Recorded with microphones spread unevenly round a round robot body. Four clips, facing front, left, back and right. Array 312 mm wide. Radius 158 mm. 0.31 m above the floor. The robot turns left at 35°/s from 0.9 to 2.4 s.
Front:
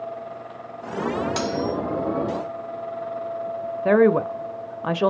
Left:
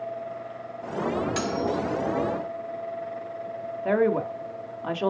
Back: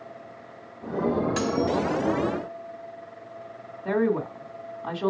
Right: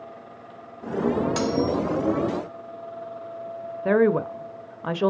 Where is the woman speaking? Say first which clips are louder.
Right 3 dB, front 7 dB; 25° right, 1.3 m.